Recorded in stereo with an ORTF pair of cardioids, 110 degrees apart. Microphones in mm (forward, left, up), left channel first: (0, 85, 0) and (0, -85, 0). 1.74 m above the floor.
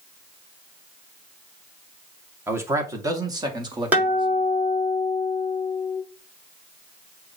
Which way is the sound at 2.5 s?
15° right.